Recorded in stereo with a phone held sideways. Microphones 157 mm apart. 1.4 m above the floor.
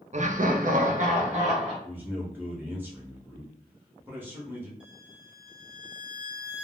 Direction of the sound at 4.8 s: 5° right (ahead or behind).